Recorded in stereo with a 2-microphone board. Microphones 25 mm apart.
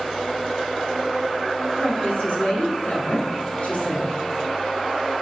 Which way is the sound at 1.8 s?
40° left (ahead or behind).